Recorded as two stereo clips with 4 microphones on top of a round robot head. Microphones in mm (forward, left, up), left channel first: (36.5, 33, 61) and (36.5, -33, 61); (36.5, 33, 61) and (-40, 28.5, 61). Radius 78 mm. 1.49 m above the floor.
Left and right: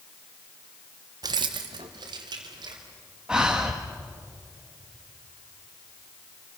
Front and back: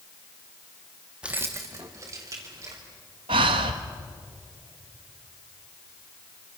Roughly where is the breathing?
Behind.